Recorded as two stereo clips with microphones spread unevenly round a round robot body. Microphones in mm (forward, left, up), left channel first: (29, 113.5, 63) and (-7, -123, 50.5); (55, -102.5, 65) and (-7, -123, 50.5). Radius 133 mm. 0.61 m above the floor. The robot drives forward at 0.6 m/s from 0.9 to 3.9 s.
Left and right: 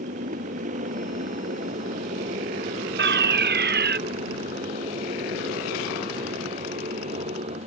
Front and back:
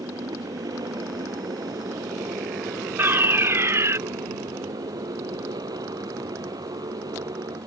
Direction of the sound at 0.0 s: 160° right.